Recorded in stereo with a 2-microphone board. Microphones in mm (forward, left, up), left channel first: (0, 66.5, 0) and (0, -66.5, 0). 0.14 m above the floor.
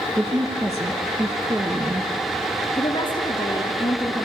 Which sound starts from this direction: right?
A woman speaking, at 0.2 s.